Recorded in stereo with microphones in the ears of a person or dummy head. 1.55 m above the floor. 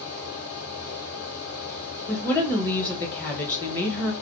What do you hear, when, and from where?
0.0 s a fan: 65° left (ahead or behind), 1.5 m
2.1 s a woman speaking: 15° left (ahead or behind), 1.0 m